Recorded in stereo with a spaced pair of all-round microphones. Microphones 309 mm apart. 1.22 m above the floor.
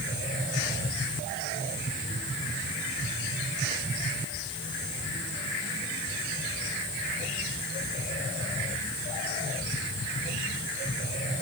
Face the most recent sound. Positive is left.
No sound to turn to.